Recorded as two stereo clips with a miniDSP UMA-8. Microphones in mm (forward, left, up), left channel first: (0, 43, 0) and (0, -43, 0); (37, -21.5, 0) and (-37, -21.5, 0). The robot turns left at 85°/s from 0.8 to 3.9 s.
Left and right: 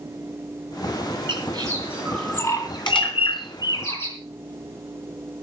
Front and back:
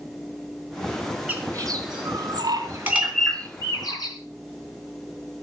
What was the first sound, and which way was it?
A bird, 110° right.